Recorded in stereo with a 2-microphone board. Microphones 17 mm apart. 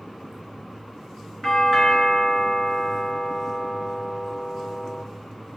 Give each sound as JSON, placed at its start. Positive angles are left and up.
{"t": 1.4, "sound": "a doorbell", "side_deg": 20, "distance_m": 3.0}